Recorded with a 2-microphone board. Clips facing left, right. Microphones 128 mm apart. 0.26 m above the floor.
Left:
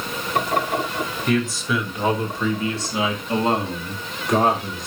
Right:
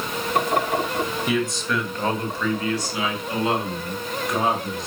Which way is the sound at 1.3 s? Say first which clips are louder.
Left 6 dB; 5° right (ahead or behind).